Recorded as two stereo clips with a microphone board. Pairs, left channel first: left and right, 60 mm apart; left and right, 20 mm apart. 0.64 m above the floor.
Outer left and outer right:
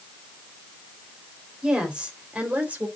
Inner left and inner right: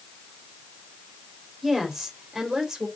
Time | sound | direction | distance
1.6 | a woman speaking | 15° right (ahead or behind) | 3.5 m